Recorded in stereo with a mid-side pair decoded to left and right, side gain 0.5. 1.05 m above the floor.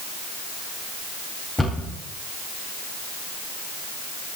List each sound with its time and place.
1.6 s a cupboard door: 10° left, 4.5 m